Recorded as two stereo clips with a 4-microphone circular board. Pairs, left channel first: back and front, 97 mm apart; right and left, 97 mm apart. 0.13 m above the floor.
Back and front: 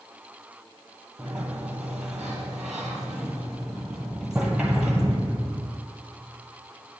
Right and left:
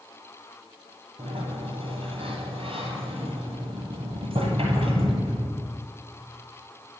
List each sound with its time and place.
1.2 s a sliding door: 85° left, 1.4 m